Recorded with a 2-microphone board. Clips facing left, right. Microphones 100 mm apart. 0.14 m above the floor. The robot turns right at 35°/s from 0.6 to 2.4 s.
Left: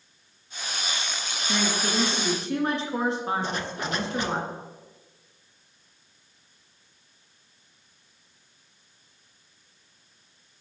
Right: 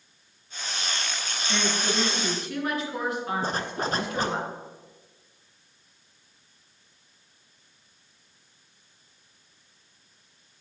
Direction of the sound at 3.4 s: 40° right (ahead or behind).